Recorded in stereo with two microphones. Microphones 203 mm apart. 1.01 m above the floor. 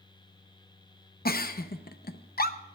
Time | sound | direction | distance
1.2 | a giggle | 50° left (ahead or behind) | 0.7 m